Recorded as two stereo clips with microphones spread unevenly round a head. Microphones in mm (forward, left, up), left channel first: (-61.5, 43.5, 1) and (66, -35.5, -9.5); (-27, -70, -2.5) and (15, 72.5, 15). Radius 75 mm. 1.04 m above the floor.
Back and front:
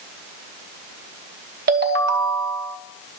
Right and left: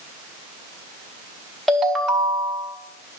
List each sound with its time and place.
1.7 s a ringtone: 15° right, 0.8 m